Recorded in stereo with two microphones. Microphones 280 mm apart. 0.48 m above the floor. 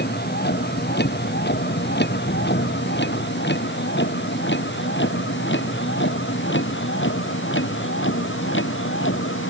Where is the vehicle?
40° left (ahead or behind); by 9.5 s 45° left (ahead or behind).